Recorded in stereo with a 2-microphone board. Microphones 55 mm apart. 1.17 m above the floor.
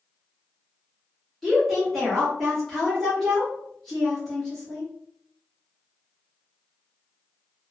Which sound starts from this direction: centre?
A woman speaking, at 1.4 s.